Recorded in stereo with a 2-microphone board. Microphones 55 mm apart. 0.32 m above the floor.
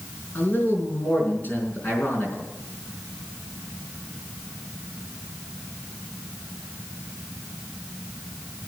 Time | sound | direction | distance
0.3 | a man speaking | 35° left (ahead or behind) | 4.5 m